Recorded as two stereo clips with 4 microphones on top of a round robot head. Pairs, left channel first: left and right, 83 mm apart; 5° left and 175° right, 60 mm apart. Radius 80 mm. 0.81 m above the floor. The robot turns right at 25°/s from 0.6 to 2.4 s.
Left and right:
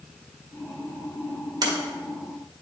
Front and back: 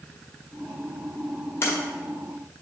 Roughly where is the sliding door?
Ahead right.